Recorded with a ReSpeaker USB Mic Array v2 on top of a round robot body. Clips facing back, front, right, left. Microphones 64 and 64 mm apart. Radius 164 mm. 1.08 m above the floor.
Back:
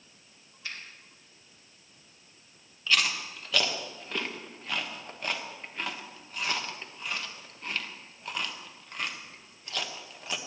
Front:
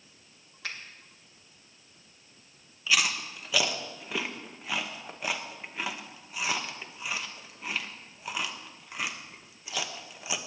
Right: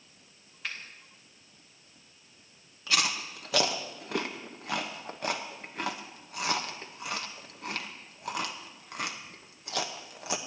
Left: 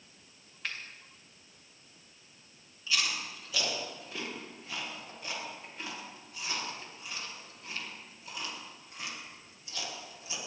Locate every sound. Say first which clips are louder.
0.6 s a finger snap: front 2 dB, right 1 dB; straight ahead, 2 m
2.9 s chewing: even, right 3 dB; 80° right, 1.1 m